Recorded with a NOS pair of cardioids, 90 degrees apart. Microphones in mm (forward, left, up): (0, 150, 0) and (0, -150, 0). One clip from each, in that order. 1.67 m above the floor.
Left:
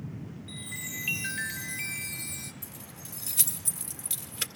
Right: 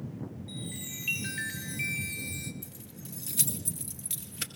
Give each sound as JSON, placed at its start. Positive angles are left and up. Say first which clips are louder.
{"t": 0.5, "sound": "a chime", "louder": "left 5 dB", "azimuth_deg": 15, "distance_m": 2.0}
{"t": 2.6, "sound": "keys jangling", "louder": "left 3 dB", "azimuth_deg": 15, "distance_m": 2.0}